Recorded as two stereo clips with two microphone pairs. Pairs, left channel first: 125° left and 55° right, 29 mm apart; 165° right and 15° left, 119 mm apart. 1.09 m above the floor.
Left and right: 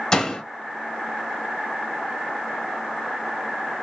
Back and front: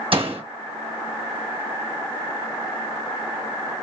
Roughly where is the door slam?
Ahead left.